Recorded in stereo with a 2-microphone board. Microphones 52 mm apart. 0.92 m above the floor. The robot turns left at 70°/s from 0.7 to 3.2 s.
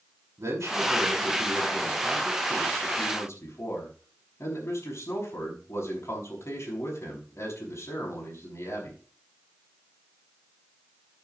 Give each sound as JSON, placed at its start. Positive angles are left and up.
{"t": 0.4, "sound": "a man speaking", "azimuth_deg": -75, "distance_m": 6.0}